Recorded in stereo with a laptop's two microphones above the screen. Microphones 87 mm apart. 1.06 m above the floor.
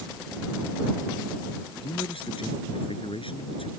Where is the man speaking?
85° left.